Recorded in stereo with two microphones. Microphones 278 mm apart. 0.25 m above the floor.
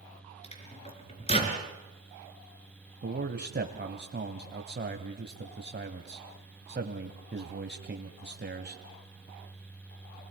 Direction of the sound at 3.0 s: 40° right (ahead or behind).